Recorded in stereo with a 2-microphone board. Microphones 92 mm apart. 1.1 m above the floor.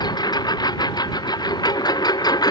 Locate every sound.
0.0 s a lawn mower: 50° left (ahead or behind); by 2.5 s 45° left (ahead or behind)